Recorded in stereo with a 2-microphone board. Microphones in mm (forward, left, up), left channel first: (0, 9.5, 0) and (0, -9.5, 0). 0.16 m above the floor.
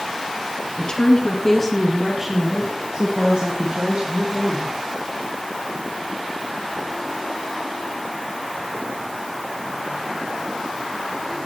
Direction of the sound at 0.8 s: 40° left (ahead or behind).